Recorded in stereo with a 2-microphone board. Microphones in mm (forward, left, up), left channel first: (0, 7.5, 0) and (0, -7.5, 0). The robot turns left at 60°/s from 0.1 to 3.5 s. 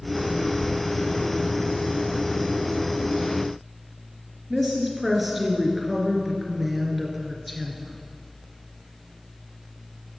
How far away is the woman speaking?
About 2.5 m.